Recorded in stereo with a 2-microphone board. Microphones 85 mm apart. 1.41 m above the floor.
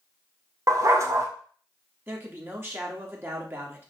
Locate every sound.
0.7 s a dog barking: 40° right (ahead or behind), 1.5 m
2.1 s a man speaking: 30° right (ahead or behind), 2.5 m